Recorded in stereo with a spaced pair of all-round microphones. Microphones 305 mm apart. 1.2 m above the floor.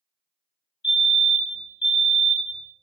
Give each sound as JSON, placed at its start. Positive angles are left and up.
{"t": 0.8, "sound": "a fire alarm", "side_deg": 65, "distance_m": 2.5}